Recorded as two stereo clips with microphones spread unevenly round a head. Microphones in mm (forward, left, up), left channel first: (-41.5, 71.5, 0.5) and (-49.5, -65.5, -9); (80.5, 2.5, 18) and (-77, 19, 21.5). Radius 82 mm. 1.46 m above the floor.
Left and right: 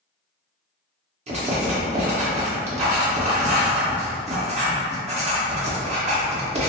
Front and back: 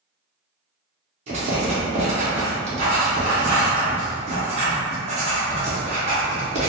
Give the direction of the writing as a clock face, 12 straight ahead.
4 o'clock.